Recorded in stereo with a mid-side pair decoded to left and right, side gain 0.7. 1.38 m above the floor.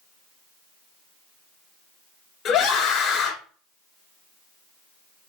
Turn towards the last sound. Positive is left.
turn(degrees=50)